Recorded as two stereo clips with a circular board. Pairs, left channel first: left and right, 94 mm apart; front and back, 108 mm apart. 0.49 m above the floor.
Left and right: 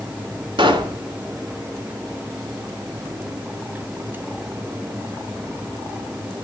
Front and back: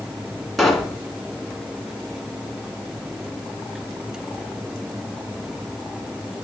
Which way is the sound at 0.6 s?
90° right.